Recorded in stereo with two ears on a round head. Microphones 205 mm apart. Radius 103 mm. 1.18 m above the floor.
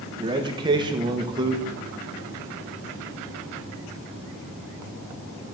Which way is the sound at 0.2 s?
20° right (ahead or behind).